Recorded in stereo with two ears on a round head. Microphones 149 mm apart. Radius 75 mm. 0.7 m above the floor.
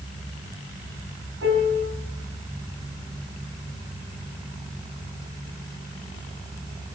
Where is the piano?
70° right (ahead or behind), 5 m.